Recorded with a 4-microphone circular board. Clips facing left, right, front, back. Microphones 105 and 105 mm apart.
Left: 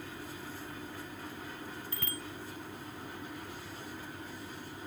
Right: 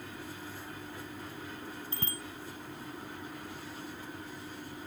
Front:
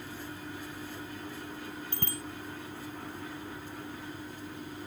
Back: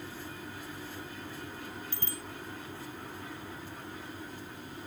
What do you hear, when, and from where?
1.9 s a bicycle bell: 30° right